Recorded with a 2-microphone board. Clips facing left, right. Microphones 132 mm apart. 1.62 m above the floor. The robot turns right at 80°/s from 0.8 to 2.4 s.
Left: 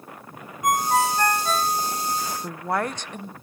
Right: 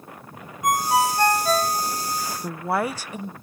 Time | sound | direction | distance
0.6 | a ringtone | straight behind | 0.8 m
2.4 | a woman speaking | 5° right (ahead or behind) | 0.6 m